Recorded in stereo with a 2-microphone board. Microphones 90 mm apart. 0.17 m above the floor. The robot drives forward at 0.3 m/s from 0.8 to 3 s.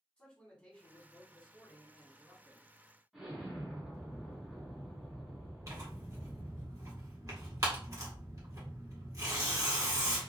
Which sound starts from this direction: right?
Tearing paper, at 5.7 s.